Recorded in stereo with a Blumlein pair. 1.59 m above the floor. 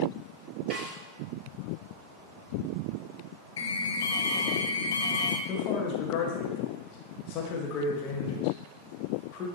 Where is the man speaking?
35° left, 1.6 m.